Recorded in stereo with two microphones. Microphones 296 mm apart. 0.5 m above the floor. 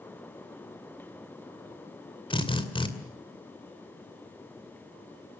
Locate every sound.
2.3 s a drill: 20° left (ahead or behind), 2.5 m